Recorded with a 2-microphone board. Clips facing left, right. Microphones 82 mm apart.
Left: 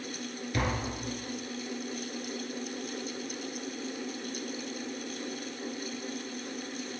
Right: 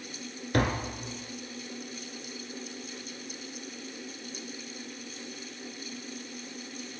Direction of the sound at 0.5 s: 55° right (ahead or behind).